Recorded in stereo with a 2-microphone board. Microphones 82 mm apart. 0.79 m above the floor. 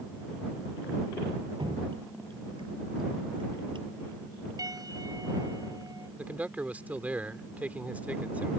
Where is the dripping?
75° right (ahead or behind).